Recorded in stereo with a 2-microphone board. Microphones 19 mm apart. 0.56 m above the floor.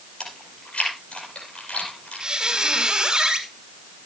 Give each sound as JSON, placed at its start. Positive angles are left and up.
{"t": 0.2, "sound": "chewing", "side_deg": 85, "distance_m": 5.0}
{"t": 2.2, "sound": "a squeak", "side_deg": -35, "distance_m": 2.0}